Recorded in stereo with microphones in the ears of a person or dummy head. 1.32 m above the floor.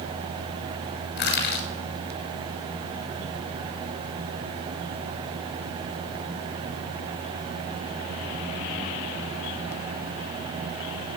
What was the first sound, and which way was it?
Crushing, 65° left (ahead or behind).